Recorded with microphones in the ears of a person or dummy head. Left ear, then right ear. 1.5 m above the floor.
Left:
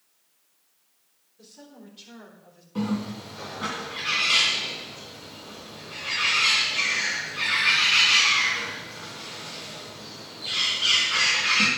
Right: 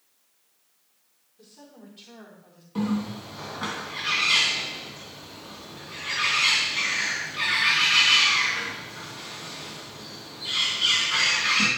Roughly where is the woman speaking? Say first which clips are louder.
Left 1 dB; centre.